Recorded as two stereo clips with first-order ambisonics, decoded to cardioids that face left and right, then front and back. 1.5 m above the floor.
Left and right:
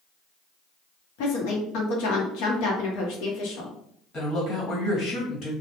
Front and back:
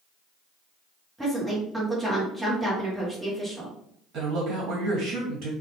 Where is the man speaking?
145° left, 1.3 m.